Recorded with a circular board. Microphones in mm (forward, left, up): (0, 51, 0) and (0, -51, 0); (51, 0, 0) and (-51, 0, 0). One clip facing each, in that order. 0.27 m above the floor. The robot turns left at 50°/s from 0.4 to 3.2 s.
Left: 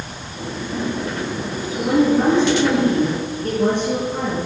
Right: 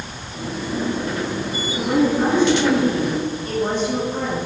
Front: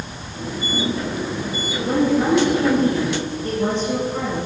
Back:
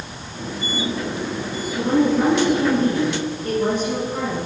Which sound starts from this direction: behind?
A woman speaking, at 1.7 s.